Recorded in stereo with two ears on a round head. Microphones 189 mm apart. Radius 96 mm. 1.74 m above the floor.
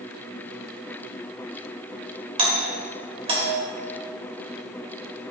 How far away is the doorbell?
About 2 m.